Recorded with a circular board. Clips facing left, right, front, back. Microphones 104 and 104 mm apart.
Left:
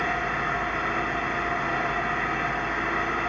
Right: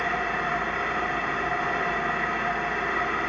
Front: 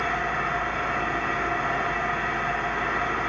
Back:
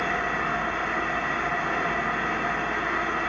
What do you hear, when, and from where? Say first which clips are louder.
0.0 s an engine running: even, even; 175° right, 1.8 m